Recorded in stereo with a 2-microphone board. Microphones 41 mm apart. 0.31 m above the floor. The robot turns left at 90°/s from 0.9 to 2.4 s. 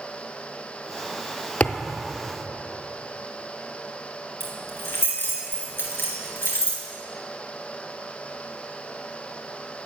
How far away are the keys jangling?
About 3 m.